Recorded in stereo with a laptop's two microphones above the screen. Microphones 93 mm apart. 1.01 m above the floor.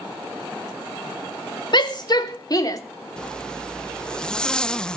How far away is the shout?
About 3 m.